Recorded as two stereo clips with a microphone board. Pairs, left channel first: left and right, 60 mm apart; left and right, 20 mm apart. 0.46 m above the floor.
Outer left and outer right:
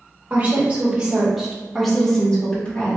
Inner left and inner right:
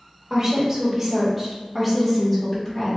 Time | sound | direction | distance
0.3 | a woman speaking | 30° right (ahead or behind) | 1.6 m